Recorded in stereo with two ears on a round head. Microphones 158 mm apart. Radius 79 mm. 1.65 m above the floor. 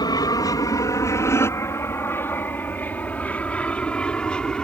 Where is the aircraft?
25° left (ahead or behind); by 4.7 s 5° left (ahead or behind).